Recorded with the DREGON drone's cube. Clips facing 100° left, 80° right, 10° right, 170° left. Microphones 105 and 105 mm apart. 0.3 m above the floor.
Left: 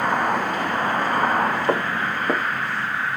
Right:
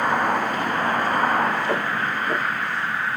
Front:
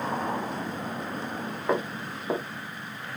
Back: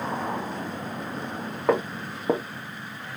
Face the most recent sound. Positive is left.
turn(degrees=150)